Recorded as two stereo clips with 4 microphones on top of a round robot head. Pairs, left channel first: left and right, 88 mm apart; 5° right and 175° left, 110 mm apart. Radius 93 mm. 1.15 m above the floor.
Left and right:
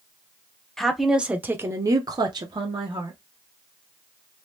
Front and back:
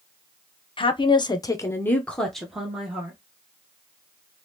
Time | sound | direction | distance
0.8 | a woman speaking | 5° left | 0.8 m